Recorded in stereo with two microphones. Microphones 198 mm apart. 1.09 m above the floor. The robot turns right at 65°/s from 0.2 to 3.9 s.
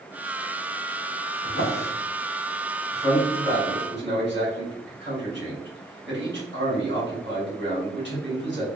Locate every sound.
1.4 s a drawer: 70° left (ahead or behind), 1.5 m; by 1.9 s 65° left (ahead or behind), 1.5 m
2.9 s a man speaking: centre (ahead or behind), 2 m; by 8.7 s 60° right (ahead or behind), 2 m